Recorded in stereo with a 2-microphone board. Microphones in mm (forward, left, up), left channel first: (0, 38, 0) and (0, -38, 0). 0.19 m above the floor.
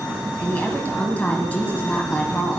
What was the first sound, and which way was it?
A woman speaking, 20° left (ahead or behind).